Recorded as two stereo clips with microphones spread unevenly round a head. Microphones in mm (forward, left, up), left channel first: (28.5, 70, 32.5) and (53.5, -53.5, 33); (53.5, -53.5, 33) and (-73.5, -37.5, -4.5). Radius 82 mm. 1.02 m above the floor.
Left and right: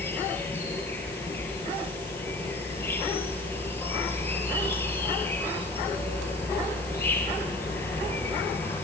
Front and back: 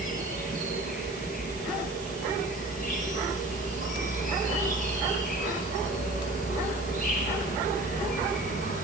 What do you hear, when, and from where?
0.0 s an insect: 30° left, 4 m